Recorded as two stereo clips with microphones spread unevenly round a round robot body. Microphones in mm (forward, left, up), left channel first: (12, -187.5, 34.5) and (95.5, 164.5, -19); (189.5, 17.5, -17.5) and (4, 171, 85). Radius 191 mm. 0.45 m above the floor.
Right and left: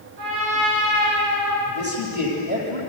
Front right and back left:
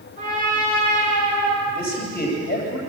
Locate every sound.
0.2 s a trumpet: 80° left, 9 m
1.6 s a man speaking: 15° left, 10 m